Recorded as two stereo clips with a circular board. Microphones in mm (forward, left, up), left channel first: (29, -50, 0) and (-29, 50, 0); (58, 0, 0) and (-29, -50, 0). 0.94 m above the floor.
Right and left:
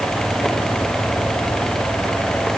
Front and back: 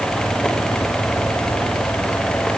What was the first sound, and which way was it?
Only background noise.